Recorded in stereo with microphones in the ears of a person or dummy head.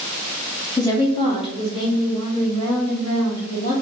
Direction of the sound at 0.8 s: 15° left (ahead or behind).